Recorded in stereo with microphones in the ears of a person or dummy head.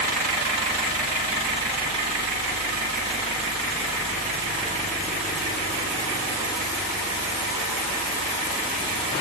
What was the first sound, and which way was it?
Only background noise.